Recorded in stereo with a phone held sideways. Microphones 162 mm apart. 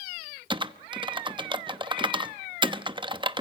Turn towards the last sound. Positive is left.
turn(degrees=-30)  # may be behind; listen again after turning